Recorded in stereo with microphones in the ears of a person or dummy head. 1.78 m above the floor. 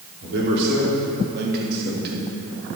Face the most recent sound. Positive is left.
turn(degrees=-50)  # may be behind; listen again after turning